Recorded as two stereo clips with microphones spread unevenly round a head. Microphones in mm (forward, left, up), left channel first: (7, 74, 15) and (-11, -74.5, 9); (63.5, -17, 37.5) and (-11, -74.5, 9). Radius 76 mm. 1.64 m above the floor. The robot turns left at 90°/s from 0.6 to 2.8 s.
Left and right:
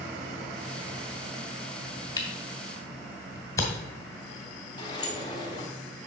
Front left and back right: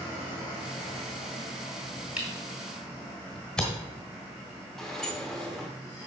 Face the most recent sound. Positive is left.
turn(degrees=85)